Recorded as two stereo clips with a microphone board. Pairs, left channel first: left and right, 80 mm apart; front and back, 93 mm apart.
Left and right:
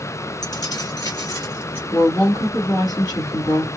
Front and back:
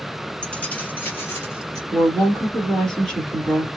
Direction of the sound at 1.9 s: 85° left.